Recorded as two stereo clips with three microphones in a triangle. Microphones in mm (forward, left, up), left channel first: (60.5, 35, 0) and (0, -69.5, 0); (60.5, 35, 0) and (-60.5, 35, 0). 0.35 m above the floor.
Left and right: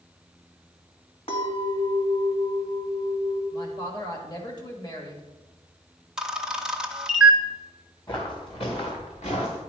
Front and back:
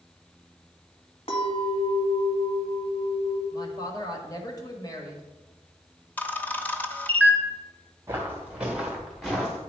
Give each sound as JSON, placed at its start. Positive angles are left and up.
{"t": 1.3, "sound": "a clink", "azimuth_deg": 30, "distance_m": 1.6}
{"t": 3.5, "sound": "a woman speaking", "azimuth_deg": 30, "distance_m": 1.4}
{"t": 6.2, "sound": "a camera shutter", "azimuth_deg": -45, "distance_m": 0.6}
{"t": 8.1, "sound": "footsteps", "azimuth_deg": 110, "distance_m": 2.0}